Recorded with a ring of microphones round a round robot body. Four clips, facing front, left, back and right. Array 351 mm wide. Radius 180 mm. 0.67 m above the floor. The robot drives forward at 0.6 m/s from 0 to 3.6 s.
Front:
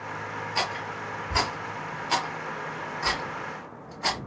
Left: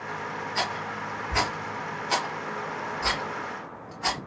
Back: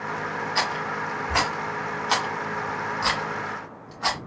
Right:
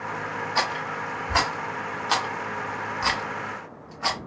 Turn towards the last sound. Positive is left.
turn(degrees=-145)